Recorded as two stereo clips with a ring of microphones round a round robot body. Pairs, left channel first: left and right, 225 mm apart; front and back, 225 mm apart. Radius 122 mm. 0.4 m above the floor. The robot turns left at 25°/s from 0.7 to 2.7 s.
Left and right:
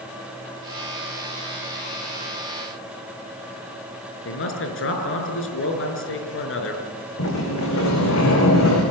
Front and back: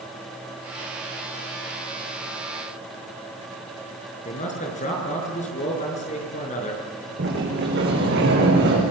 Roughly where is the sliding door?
Behind left.